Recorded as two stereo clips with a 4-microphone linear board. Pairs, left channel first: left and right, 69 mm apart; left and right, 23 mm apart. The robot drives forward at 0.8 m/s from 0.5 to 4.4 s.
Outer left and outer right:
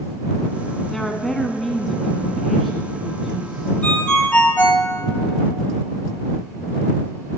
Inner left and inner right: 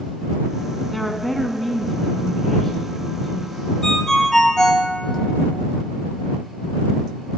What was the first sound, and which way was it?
A woman speaking, 5° left (ahead or behind).